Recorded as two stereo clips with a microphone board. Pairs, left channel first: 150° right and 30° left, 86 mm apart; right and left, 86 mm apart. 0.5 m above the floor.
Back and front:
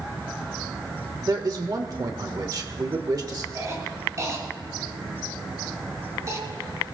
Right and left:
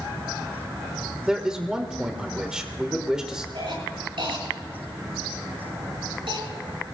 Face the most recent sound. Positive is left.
turn(degrees=80)